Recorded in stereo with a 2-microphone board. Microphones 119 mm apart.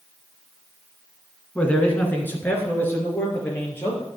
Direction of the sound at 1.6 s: 10° left (ahead or behind).